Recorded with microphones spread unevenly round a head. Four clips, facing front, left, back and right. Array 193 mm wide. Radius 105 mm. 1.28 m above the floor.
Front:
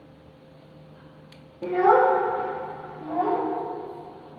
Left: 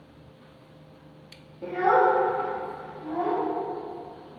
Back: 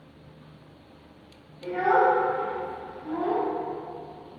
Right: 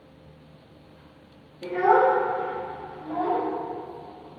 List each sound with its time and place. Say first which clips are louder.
1.6 s a child speaking: right 2 dB, front 3 dB; 10° left, 0.5 m; by 3.4 s 15° right, 2.5 m